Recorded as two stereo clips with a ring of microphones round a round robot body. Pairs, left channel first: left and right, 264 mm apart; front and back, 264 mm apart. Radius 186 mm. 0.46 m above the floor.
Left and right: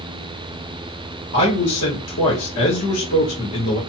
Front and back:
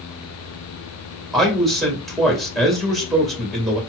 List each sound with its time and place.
1.3 s a man speaking: 90° left, 1.9 m